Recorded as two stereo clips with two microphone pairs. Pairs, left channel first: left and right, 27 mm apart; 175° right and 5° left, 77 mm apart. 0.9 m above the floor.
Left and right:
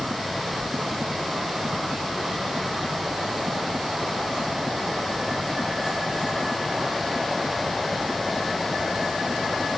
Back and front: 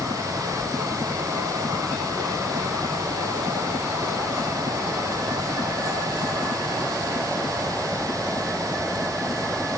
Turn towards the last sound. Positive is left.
No sound to turn to.